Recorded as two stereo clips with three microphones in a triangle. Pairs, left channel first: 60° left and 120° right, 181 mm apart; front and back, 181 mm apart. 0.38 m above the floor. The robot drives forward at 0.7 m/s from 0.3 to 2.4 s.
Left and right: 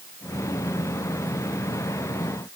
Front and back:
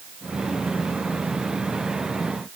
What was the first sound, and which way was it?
Only background noise.